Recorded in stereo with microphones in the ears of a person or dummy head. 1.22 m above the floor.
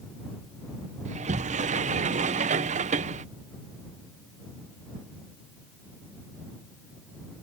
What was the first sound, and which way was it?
A sliding door, 35° right (ahead or behind).